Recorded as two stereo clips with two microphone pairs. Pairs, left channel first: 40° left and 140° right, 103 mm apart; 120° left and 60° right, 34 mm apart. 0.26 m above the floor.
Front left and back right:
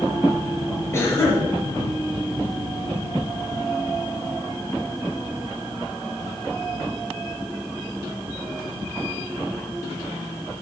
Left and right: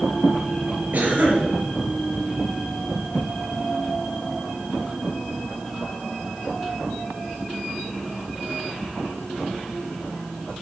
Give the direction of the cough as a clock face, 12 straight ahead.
1 o'clock.